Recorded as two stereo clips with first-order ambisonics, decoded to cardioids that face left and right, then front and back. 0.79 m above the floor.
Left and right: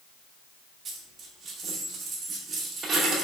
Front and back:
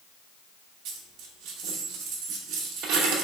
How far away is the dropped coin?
About 0.7 m.